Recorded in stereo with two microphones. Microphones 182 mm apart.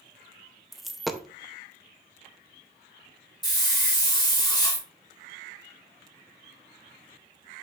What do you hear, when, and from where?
0.7 s a dropped coin: centre (ahead or behind), 0.7 m
3.4 s a hiss: 25° left (ahead or behind), 2.5 m